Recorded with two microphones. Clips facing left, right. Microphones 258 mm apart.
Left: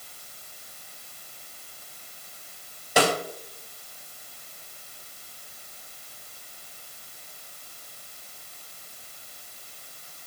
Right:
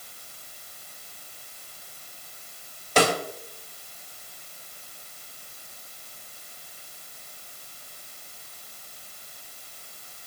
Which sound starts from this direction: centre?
A snare drum, at 3.0 s.